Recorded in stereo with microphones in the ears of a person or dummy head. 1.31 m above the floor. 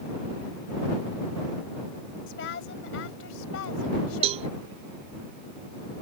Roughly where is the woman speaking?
Left.